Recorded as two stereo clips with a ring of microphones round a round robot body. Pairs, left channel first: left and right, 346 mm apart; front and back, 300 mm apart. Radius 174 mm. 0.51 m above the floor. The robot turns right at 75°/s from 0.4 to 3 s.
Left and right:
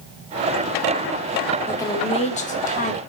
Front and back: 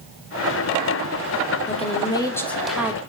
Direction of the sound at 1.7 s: 15° left.